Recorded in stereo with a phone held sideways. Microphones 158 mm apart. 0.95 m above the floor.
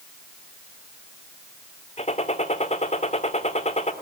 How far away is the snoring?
No snoring in this recording.